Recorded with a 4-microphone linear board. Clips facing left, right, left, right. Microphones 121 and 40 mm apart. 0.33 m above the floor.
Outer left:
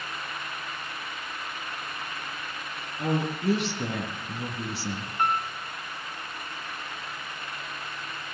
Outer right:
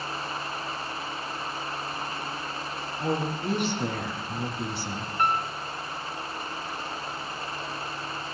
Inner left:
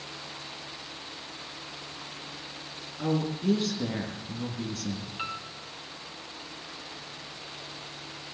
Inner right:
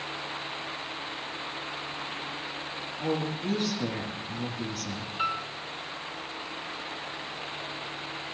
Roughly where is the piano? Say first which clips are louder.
Outer right 1 dB, inner right 9 dB; centre.